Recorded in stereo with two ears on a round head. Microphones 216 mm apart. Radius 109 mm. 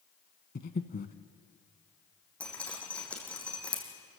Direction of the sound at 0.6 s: 40° left (ahead or behind).